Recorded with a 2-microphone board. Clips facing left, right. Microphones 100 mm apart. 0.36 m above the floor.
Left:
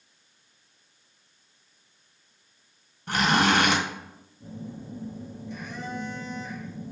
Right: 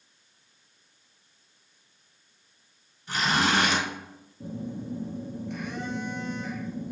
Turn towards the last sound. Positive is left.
turn(degrees=-65)  # may be behind; listen again after turning